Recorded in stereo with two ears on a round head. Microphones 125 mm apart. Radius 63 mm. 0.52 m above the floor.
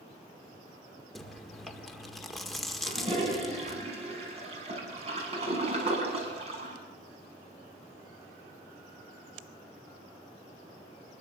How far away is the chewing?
About 1.8 m.